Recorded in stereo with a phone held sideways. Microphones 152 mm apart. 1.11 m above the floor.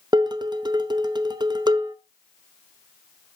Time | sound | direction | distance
0.1 | dishes clattering | 25° right (ahead or behind) | 0.8 m